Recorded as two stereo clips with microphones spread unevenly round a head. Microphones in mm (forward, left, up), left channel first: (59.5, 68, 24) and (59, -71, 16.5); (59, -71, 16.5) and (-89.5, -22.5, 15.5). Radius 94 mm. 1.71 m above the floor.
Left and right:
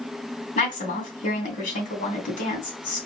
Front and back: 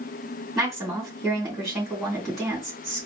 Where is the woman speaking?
70° left, 2.5 m.